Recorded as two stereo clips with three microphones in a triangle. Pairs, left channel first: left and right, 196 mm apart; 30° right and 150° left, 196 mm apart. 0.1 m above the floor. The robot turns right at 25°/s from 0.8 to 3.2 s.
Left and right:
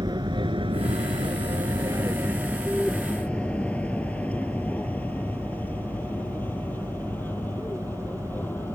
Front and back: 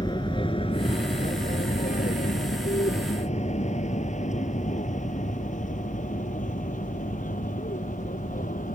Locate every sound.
0.0 s an aircraft: 60° right; by 8.8 s 10° left